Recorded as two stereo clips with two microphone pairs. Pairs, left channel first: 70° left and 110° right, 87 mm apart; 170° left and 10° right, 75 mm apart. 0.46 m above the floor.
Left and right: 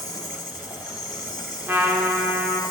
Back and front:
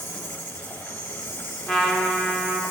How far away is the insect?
About 2 m.